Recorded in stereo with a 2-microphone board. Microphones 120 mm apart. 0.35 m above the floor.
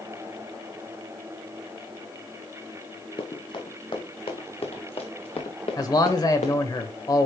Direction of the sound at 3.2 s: 45° left (ahead or behind).